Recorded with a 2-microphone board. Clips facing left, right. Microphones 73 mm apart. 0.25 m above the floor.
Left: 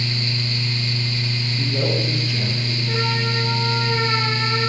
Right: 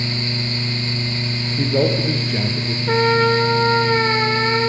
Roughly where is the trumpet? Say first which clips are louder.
Right 11 dB; right.